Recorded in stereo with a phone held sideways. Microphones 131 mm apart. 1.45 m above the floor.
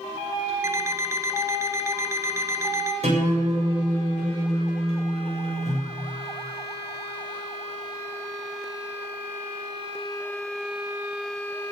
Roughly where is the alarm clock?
Right.